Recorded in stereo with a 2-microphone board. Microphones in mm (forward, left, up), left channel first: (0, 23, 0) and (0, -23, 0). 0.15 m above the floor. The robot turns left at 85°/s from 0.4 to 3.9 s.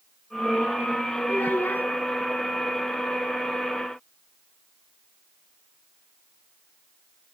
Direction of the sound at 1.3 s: 110° left.